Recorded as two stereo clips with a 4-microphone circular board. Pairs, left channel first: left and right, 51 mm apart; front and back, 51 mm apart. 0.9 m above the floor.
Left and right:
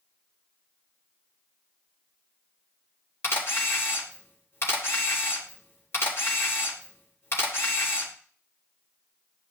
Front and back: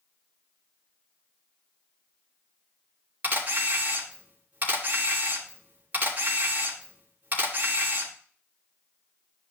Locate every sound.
3.2 s a camera shutter: 125° left, 3 m